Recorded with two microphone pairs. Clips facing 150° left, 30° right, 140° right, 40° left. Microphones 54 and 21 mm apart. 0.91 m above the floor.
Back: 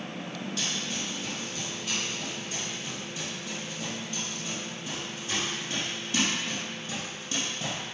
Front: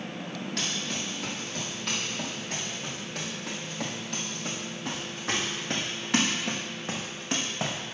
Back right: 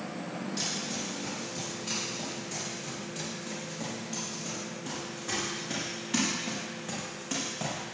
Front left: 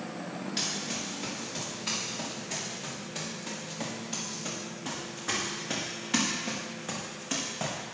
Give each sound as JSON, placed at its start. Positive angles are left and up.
{"t": 0.6, "sound": "running footsteps", "azimuth_deg": -10, "distance_m": 7.5}